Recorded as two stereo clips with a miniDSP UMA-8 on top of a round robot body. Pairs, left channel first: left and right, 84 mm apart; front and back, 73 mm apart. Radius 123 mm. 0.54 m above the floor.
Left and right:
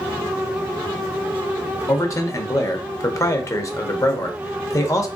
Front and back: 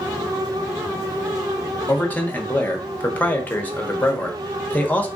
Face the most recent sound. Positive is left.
turn(degrees=60)